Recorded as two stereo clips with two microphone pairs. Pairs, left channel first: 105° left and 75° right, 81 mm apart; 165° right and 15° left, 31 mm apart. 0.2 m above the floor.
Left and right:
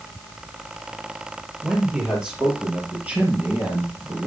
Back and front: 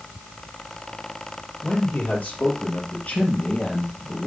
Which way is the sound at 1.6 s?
155° right.